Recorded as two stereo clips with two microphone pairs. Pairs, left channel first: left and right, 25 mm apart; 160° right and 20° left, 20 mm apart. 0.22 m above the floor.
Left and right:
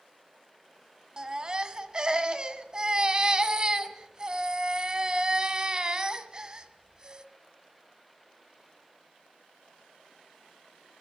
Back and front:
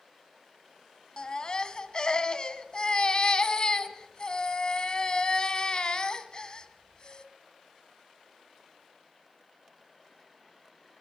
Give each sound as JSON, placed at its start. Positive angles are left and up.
{"t": 1.2, "sound": "a baby crying", "azimuth_deg": -135, "distance_m": 1.3}